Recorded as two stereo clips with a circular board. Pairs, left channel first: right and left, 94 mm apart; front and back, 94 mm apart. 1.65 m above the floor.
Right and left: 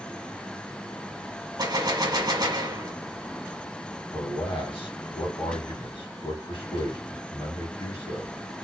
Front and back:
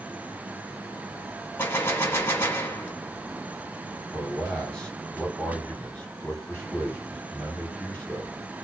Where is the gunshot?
60° left, 1.1 m.